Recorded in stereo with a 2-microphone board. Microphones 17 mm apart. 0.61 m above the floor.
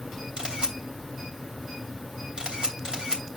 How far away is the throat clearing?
I don't hear throat clearing.